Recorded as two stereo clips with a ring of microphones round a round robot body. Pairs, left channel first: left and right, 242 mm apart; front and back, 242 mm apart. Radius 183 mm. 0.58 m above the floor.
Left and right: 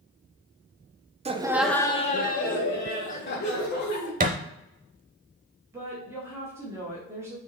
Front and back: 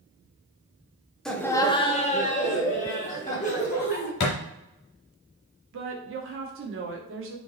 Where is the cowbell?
No cowbell in this recording.